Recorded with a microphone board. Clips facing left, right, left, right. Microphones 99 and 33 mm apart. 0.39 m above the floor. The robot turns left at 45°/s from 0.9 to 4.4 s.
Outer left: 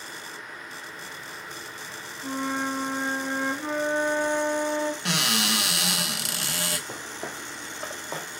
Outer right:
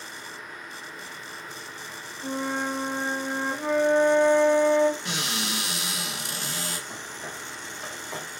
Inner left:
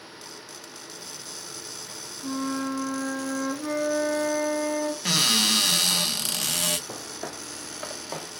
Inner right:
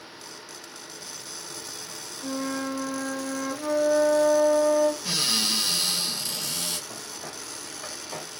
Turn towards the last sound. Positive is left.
turn(degrees=30)  # may be behind; listen again after turning